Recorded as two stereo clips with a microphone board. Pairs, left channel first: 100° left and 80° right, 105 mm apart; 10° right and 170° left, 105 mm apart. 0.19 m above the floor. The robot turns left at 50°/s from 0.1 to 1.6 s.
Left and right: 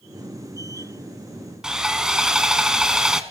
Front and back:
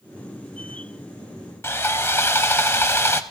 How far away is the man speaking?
No man speaking in this recording.